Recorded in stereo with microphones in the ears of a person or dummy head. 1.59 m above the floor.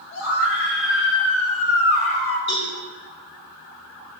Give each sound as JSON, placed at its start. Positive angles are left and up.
{"t": 0.1, "sound": "a scream", "side_deg": 65, "distance_m": 4.0}
{"t": 2.5, "sound": "a cowbell", "side_deg": 45, "distance_m": 4.0}